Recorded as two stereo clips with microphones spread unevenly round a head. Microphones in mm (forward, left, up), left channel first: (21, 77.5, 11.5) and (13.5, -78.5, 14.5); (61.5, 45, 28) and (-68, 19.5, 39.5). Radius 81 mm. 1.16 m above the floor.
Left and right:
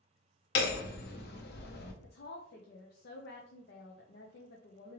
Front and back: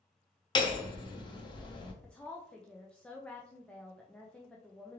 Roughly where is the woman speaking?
Left.